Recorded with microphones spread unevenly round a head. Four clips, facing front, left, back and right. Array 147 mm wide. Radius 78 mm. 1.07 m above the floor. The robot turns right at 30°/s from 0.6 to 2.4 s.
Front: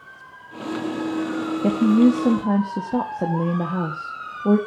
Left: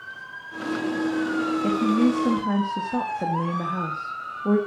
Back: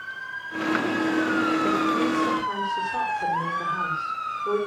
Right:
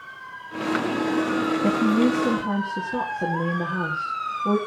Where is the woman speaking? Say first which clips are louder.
Even, front 6 dB; 25° right, 2 m; by 4.6 s straight ahead, 2 m.